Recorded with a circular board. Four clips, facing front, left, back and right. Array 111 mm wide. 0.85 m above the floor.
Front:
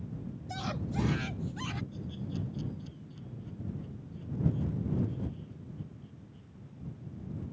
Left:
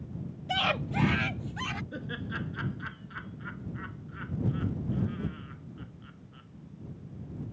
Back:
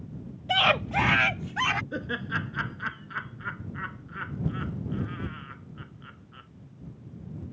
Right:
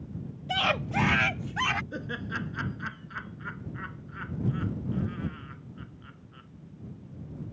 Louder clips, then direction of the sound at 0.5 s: Right 2 dB, back 13 dB; straight behind.